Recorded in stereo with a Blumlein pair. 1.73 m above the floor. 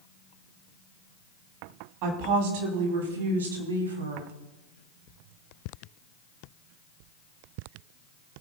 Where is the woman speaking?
45° right, 3 m; by 4.3 s 75° right, 3 m.